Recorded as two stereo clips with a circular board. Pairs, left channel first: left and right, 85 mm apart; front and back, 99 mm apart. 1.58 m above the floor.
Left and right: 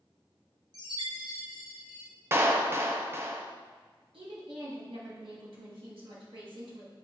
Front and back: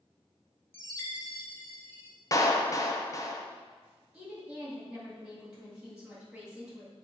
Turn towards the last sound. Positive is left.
turn(degrees=-100)